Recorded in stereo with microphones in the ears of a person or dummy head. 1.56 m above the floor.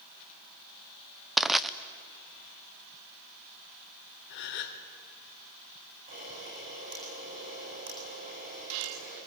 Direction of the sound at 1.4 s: 5° left (ahead or behind).